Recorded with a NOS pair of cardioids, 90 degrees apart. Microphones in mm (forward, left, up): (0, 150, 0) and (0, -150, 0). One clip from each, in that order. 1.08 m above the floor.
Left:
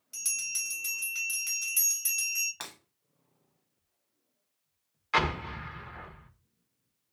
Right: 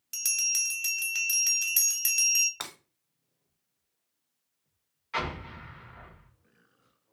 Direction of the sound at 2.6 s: 20° right.